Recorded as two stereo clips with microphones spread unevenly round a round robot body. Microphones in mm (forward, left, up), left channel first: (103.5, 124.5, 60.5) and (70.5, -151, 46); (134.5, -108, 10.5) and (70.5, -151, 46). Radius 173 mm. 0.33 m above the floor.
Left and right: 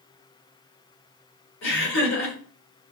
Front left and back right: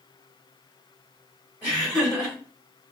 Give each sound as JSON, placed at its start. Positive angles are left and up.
{"t": 1.6, "sound": "laughter", "azimuth_deg": 65, "distance_m": 1.4}